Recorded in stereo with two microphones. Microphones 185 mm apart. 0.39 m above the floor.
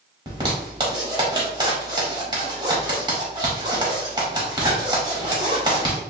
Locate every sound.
0.3 s a zipper: 25° right (ahead or behind), 1.6 m